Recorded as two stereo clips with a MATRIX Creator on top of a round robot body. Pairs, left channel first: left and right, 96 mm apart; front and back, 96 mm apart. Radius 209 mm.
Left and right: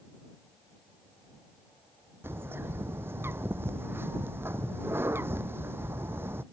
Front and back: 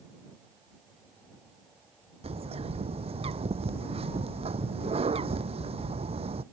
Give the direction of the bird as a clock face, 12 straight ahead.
5 o'clock.